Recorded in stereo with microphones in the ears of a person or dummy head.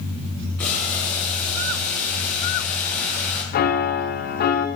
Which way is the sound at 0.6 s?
10° left (ahead or behind).